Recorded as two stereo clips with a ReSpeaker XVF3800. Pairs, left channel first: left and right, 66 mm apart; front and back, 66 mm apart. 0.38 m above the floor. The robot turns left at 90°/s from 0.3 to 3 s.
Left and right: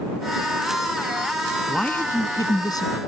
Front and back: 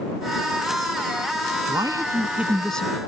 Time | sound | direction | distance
1.7 | a man speaking | 175° left | ?